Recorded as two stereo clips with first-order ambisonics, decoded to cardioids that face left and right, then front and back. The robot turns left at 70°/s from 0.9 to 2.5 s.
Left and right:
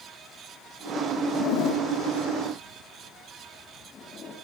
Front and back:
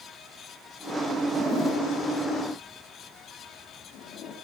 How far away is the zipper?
About 1.4 m.